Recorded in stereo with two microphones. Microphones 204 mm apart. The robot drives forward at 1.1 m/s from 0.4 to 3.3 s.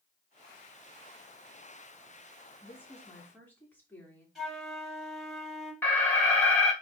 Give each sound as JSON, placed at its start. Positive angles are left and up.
{"t": 2.6, "sound": "a woman speaking", "side_deg": 10, "distance_m": 2.5}
{"t": 4.3, "sound": "a flute", "side_deg": 0, "distance_m": 4.5}
{"t": 5.8, "sound": "an alarm", "side_deg": 10, "distance_m": 1.8}